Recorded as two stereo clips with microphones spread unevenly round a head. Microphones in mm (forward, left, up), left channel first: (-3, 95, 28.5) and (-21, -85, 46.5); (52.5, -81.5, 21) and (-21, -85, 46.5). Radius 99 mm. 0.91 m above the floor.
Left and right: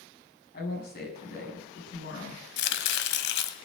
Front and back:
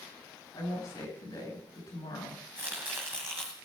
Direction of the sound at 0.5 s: 45° left.